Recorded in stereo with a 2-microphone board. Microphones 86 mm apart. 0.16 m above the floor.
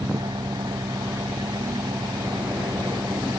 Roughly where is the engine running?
Right.